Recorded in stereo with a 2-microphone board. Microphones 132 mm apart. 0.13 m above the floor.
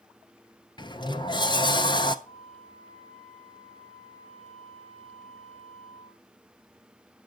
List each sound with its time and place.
0.8 s a sliding door: 35° left (ahead or behind), 0.6 m
2.2 s a flute: 5° left (ahead or behind), 7.5 m